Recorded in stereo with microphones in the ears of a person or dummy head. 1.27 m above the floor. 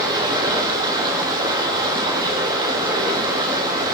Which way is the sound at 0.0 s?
25° right (ahead or behind).